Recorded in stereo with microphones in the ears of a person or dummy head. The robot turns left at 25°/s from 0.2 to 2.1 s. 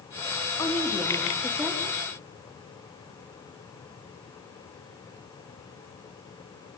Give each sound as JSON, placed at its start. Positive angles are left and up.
{"t": 0.6, "sound": "a woman speaking", "azimuth_deg": 20, "distance_m": 2.5}